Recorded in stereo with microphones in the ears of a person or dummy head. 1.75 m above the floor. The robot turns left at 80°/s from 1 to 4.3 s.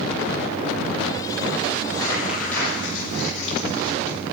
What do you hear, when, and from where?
1.8 s crumpling: 40° right (ahead or behind), 7.5 m; by 4.2 s 35° left (ahead or behind), 7.5 m